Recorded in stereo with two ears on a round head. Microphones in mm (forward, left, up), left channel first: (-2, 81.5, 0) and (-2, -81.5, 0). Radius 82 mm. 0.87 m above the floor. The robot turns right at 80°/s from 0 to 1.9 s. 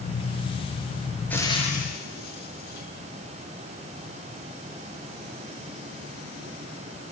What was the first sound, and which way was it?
Frying, 10° left (ahead or behind).